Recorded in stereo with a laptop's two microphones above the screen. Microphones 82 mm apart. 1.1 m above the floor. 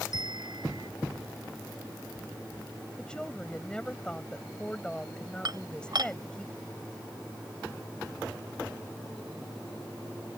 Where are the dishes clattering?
60° right (ahead or behind).